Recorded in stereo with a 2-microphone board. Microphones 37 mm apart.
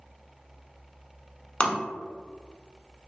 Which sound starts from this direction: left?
Tapping, at 1.6 s.